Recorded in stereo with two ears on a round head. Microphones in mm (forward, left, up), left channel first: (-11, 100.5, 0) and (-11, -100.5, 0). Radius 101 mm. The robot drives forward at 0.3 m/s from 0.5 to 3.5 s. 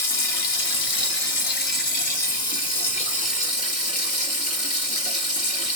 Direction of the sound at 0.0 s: 60° left (ahead or behind).